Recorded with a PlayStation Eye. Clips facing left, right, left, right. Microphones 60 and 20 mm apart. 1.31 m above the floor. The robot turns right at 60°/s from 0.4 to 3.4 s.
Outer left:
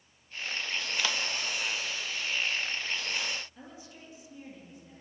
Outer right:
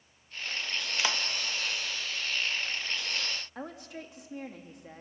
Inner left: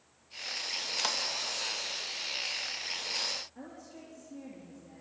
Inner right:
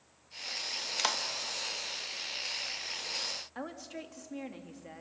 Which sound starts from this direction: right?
A woman speaking, at 3.5 s.